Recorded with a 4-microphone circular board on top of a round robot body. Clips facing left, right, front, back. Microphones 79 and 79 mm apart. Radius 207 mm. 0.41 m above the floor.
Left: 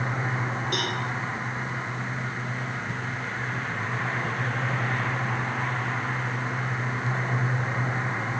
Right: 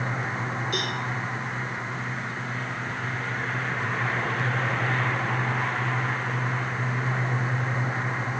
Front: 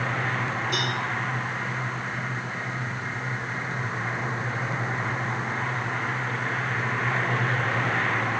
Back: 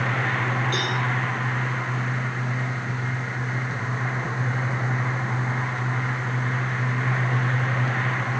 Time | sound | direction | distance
0.7 | a cowbell | 75° left | 8.5 m